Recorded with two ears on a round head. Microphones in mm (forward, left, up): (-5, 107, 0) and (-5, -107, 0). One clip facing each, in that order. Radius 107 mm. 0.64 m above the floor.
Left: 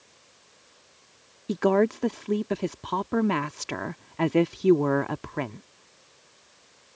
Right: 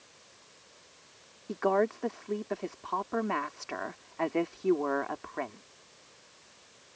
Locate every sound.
1.5 s a woman speaking: 50° left (ahead or behind)